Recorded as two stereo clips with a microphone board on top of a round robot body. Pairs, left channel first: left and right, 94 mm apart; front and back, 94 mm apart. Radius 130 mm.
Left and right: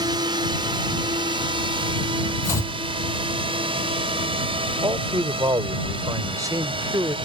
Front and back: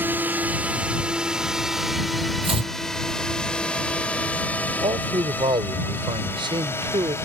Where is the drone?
115° right; by 7.3 s 65° right.